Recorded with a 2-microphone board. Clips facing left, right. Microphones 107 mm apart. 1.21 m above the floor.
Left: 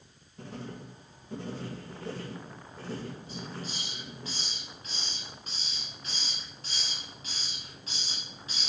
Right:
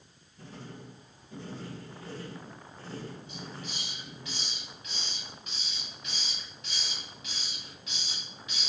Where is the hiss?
35° left (ahead or behind), 6 m.